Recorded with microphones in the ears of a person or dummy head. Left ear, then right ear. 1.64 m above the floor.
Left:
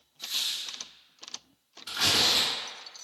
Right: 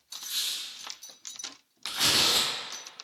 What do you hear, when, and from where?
0.2 s a squeak: 15° right (ahead or behind), 1.4 m
1.9 s tearing paper: 55° right (ahead or behind), 1.3 m